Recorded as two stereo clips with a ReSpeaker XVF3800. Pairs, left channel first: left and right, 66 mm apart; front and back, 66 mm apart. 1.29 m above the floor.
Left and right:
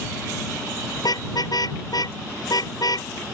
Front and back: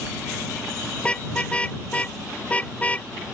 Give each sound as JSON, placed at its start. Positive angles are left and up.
{"t": 1.0, "sound": "a car horn", "azimuth_deg": 70}